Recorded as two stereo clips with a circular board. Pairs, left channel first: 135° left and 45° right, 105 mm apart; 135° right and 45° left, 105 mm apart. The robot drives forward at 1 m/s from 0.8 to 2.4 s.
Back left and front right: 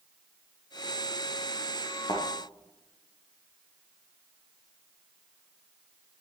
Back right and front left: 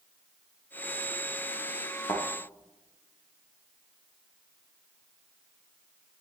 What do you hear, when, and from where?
2.1 s a thud: 175° left, 4 m